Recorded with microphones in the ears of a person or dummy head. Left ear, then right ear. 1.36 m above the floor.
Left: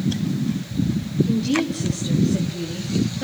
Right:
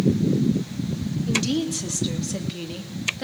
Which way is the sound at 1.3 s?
50° right (ahead or behind).